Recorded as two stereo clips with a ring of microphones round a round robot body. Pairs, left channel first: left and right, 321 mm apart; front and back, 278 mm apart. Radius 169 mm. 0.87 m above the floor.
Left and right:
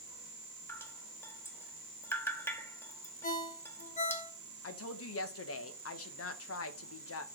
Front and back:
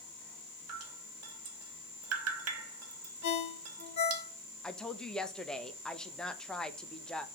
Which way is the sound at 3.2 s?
20° left.